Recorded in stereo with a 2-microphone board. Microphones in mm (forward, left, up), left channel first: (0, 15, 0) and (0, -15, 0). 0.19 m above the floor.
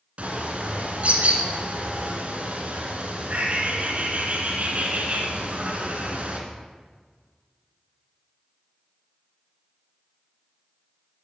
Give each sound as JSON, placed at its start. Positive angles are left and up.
{"t": 0.2, "sound": "a bird", "side_deg": -45, "distance_m": 1.9}